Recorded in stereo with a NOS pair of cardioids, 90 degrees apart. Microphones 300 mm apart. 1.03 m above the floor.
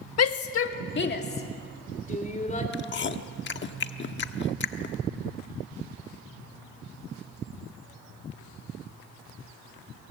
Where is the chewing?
35° left, 1.2 m.